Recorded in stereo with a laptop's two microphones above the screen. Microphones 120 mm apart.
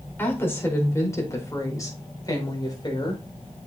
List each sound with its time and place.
0.2 s a woman speaking: 20° left (ahead or behind), 4.5 m; by 3.2 s 40° left (ahead or behind), 4.5 m